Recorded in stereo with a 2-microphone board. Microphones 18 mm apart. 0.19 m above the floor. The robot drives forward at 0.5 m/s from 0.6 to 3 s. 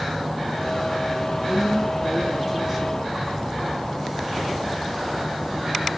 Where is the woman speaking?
35° right (ahead or behind), 1.9 m; by 3.9 s 30° right (ahead or behind), 2 m.